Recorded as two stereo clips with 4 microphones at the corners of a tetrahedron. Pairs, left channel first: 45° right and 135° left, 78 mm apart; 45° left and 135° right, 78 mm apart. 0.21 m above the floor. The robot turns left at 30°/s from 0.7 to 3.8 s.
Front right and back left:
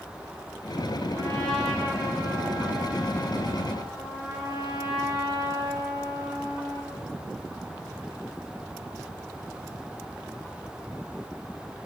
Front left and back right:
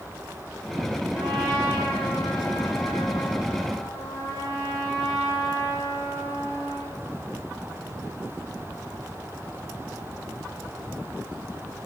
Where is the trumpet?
135° left, 8.5 m; by 7.0 s 55° left, 8.5 m.